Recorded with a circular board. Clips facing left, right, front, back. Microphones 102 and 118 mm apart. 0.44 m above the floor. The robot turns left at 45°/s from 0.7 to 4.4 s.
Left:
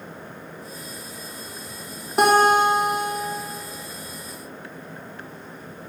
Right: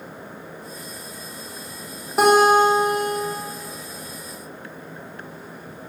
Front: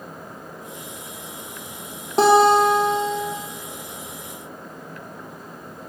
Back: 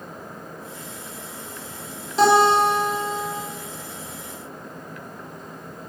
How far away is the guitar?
About 1.6 m.